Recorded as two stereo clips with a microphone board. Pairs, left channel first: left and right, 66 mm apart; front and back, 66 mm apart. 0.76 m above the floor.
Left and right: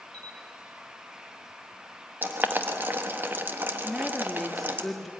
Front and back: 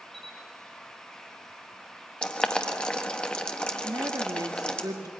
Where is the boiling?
65° right, 1.3 m.